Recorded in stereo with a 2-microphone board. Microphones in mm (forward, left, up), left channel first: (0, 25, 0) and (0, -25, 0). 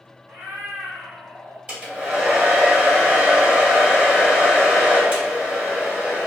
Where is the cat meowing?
55° right (ahead or behind), 0.7 m; by 1.6 s 50° right (ahead or behind), 1.3 m.